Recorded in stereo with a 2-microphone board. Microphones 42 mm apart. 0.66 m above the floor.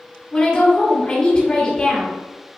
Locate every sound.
0.3 s a woman speaking: 25° left (ahead or behind), 1.6 m